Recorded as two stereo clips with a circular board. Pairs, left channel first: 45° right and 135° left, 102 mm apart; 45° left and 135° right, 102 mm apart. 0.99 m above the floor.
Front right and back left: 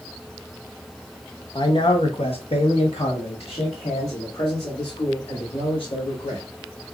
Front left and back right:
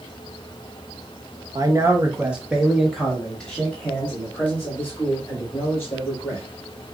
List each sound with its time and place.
1.6 s a man speaking: 85° right, 0.8 m; by 6.4 s 20° right, 3 m